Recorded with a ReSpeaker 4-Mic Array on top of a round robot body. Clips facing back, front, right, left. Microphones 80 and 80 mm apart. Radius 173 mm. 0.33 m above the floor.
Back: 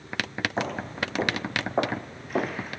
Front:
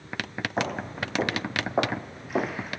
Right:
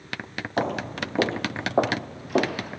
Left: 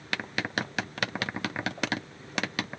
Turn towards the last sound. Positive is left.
turn(degrees=-90)